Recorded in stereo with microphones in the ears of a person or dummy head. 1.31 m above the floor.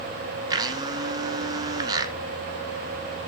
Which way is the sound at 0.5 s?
20° right (ahead or behind).